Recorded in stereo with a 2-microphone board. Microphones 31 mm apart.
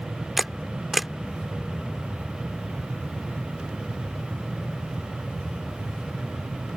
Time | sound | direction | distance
0.4 | a camera shutter | 5° right (ahead or behind) | ?